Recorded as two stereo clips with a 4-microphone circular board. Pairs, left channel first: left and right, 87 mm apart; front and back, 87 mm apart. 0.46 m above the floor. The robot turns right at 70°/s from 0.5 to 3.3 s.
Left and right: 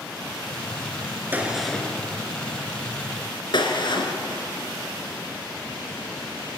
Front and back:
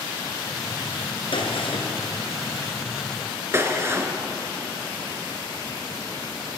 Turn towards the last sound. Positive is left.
turn(degrees=115)